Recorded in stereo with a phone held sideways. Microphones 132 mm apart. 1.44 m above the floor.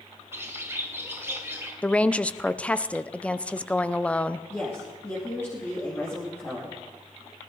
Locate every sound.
0.3 s a bird: 20° right (ahead or behind), 1.8 m
1.8 s a woman speaking: 10° left (ahead or behind), 0.5 m
4.5 s a woman speaking: 20° left (ahead or behind), 2.5 m